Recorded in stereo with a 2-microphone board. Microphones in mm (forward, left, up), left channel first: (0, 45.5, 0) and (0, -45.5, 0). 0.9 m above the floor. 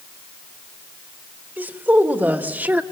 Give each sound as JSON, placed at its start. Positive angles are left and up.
{"t": 1.6, "sound": "a woman speaking", "side_deg": -20, "distance_m": 3.0}